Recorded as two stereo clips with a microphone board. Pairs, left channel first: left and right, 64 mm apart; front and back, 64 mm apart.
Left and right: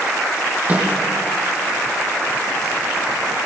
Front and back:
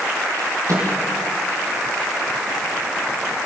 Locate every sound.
0.7 s a microwave: 155° right, 6.5 m